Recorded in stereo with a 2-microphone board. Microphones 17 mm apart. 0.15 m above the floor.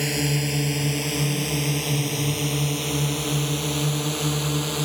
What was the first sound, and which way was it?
A drone, 5° right (ahead or behind).